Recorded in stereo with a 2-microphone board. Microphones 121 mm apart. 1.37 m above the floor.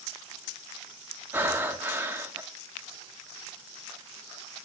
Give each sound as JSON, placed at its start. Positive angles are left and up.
{"t": 1.3, "sound": "breathing", "side_deg": -15, "distance_m": 0.9}